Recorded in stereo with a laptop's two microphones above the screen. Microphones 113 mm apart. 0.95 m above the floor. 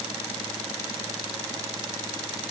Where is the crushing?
No crushing in this recording.